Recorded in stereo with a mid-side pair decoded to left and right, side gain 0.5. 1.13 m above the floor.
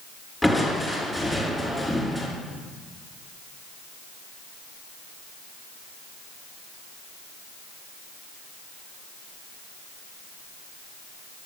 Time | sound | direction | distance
0.4 | crushing | 10° left | 2.5 m